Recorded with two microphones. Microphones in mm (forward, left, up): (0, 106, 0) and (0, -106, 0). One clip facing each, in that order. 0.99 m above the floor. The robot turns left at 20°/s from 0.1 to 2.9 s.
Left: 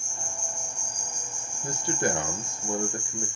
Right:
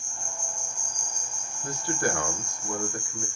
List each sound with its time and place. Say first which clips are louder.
0.0 s an insect: left 1 dB; 80° left, 1.4 m; by 3.4 s 25° left, 1.4 m
1.6 s a man speaking: left 1 dB; 20° left (ahead or behind), 0.6 m; by 3.3 s 25° left (ahead or behind), 0.6 m